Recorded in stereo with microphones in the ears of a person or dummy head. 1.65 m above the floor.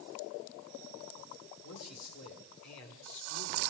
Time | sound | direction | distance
1.6 | a man speaking | 90° left | 7 m